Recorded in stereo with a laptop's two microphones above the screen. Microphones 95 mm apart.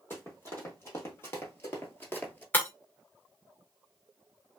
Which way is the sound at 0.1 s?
25° left (ahead or behind).